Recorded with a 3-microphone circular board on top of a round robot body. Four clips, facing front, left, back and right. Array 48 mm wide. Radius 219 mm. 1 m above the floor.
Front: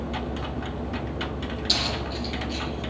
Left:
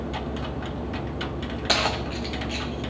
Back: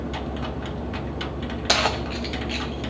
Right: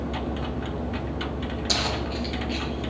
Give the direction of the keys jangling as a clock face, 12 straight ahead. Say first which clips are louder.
Left 4 dB, back 8 dB; 7 o'clock.